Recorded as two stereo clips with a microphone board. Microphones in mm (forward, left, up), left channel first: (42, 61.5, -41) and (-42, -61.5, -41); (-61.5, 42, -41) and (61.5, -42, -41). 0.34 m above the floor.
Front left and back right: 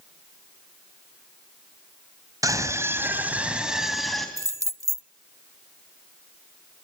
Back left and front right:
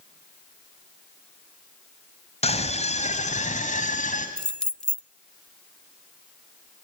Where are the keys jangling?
140° right, 0.5 m.